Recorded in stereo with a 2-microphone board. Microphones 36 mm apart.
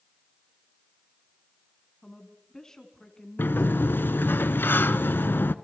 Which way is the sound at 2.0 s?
15° left (ahead or behind).